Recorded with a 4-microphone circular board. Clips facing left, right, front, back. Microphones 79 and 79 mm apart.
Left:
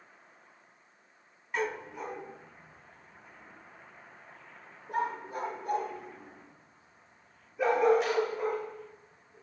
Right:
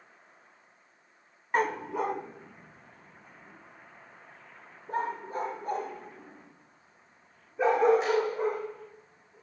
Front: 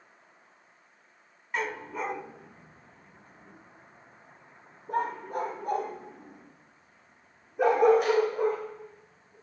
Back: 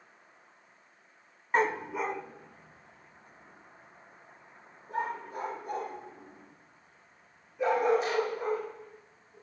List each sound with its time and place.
1.5 s a dog barking: 130° right, 0.7 m; by 9.3 s 30° right, 8 m